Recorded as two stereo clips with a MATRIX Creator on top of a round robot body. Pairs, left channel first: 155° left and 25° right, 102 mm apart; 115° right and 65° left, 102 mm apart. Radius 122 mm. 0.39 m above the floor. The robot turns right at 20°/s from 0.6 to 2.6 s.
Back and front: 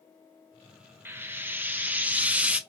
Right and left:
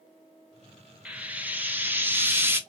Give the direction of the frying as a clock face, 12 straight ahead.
12 o'clock.